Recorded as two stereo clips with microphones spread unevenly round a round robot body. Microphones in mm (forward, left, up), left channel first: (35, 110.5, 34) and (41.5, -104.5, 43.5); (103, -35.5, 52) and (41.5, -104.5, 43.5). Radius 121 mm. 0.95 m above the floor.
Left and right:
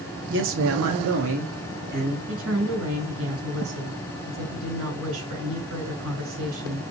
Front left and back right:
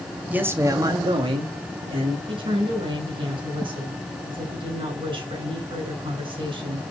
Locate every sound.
0.3 s a man speaking: 60° right, 1.4 m; by 2.2 s 145° right, 2 m
2.3 s a woman speaking: 115° right, 4.5 m